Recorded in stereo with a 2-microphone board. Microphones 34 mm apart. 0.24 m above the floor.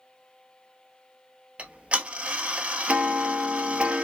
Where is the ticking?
35° right (ahead or behind), 0.7 m.